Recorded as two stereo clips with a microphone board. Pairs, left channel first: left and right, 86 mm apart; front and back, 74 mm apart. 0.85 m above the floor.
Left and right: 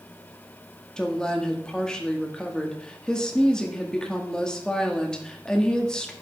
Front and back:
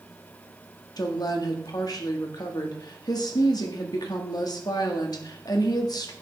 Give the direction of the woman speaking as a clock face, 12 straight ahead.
12 o'clock.